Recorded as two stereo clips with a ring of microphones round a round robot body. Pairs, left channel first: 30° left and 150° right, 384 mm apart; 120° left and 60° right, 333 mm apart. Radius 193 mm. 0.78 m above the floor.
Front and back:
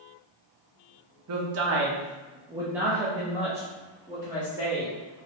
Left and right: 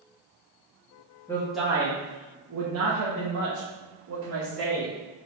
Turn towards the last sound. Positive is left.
turn(degrees=-40)